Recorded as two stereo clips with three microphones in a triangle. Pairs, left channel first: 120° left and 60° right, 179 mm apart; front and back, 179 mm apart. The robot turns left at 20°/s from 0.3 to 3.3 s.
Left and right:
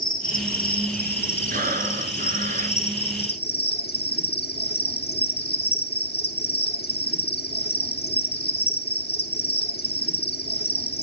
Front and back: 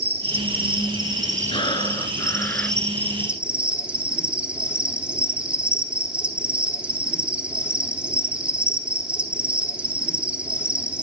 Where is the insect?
155° left, 3 m; by 11.0 s 95° left, 3 m.